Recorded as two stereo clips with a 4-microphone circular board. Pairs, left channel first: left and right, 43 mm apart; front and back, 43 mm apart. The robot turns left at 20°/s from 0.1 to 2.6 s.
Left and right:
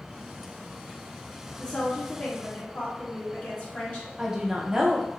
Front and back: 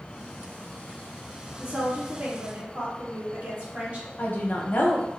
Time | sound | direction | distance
1.6 | a woman speaking | 165° left | 1.3 m
4.2 | a woman speaking | 15° right | 0.6 m